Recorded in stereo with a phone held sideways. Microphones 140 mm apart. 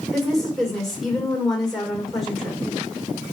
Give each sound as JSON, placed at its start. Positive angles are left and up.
{"t": 0.1, "sound": "a woman speaking", "side_deg": 0, "distance_m": 2.5}